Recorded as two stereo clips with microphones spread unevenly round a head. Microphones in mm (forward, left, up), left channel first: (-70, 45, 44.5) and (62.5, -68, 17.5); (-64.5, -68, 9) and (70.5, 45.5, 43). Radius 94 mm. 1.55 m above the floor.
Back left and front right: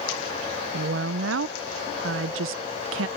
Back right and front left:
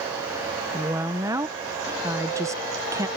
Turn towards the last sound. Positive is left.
turn(degrees=-30)